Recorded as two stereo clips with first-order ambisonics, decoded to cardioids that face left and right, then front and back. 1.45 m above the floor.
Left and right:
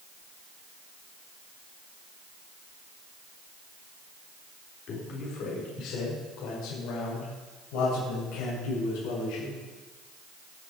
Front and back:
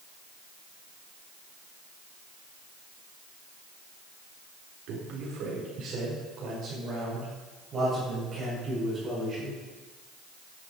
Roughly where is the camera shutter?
No camera shutter in this recording.